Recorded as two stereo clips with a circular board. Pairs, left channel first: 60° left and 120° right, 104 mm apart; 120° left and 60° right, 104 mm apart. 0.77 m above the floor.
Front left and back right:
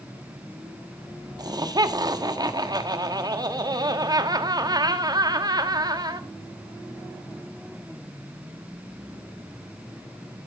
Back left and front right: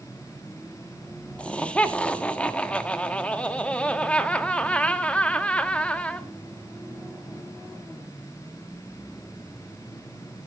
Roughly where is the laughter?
Behind.